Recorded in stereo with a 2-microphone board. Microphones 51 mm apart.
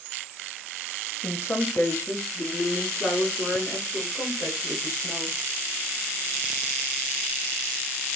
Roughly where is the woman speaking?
Left.